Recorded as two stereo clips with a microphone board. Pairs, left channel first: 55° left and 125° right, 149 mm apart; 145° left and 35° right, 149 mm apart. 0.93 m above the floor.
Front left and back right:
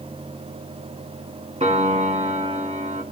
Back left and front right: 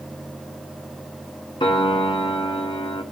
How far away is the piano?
About 1.6 m.